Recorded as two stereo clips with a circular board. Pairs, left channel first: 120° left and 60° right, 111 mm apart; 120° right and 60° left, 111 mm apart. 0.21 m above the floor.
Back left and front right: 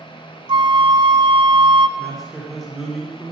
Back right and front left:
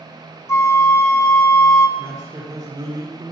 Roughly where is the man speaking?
Ahead left.